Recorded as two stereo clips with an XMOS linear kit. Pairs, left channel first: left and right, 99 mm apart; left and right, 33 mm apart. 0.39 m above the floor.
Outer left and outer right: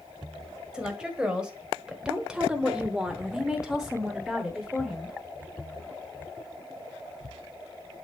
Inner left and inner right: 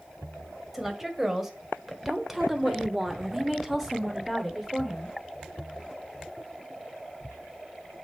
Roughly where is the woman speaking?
Centre.